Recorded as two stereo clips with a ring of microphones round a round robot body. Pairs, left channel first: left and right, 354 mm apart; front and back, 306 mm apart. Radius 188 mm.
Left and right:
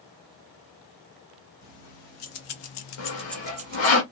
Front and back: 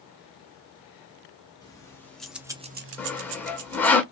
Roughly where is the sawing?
Left.